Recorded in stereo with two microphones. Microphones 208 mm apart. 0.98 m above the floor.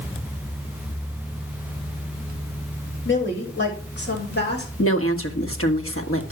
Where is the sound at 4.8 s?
75° left (ahead or behind), 1.7 m.